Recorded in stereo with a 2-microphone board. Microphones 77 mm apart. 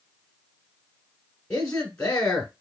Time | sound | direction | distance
1.5 | a man speaking | 15° left (ahead or behind) | 1.4 m